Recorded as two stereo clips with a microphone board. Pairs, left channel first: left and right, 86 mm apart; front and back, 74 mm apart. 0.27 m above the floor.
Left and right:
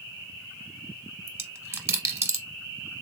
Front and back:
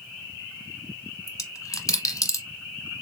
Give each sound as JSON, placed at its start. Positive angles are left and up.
{"t": 1.3, "sound": "a dropped coin", "azimuth_deg": -35, "distance_m": 0.9}